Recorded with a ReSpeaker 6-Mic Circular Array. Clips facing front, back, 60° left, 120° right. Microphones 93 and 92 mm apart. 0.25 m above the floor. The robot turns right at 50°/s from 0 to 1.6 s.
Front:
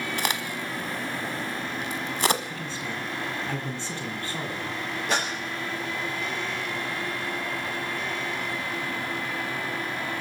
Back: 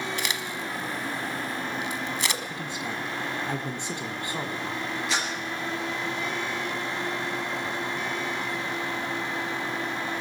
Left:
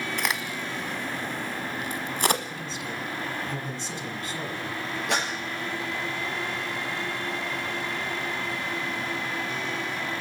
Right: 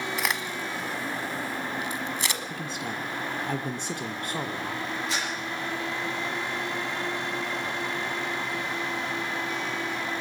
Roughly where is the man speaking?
Right.